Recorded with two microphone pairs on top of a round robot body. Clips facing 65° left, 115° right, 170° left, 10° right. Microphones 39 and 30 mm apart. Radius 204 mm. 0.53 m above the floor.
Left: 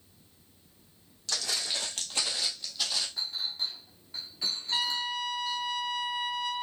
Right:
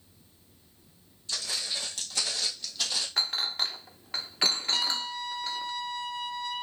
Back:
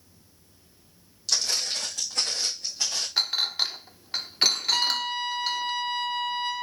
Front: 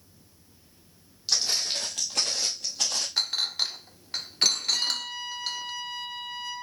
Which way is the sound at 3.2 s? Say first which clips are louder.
Right 5 dB, back 3 dB; 120° right.